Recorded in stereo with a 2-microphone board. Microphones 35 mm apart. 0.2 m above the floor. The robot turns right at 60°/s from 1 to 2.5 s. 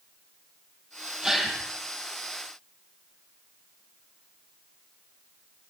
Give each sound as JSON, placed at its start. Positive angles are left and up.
{"t": 1.2, "sound": "a gasp", "side_deg": -15, "distance_m": 5.0}